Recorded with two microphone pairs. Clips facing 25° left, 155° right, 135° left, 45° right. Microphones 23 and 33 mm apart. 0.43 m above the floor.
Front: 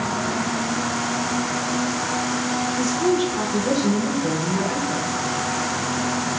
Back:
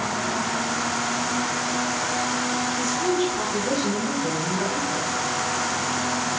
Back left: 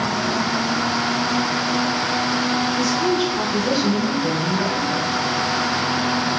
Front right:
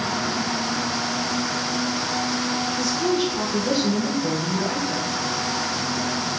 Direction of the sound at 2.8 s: 50° left.